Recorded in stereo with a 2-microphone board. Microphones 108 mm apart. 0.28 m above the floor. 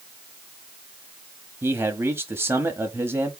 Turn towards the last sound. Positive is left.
turn(degrees=-25)  # may be behind; listen again after turning